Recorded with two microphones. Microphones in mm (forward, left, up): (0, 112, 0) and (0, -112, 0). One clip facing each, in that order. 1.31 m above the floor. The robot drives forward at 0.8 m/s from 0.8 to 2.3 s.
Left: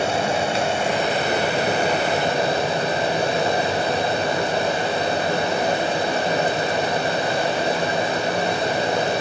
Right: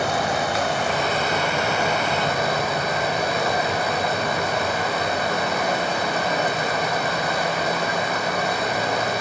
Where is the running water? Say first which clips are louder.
Left 2 dB; 25° left (ahead or behind), 1.3 m; by 9.2 s 30° left (ahead or behind), 1.2 m.